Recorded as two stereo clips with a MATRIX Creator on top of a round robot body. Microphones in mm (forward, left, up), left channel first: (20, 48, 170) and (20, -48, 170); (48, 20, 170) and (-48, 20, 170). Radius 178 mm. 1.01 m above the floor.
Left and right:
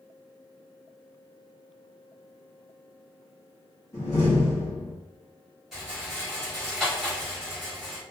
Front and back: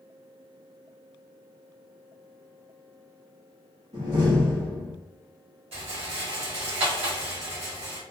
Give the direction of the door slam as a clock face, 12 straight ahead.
7 o'clock.